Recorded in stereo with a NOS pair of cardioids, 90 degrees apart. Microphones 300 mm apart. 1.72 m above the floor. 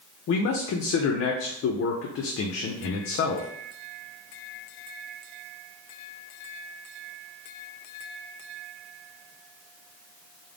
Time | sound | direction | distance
0.3 | a man speaking | 50° left | 0.5 m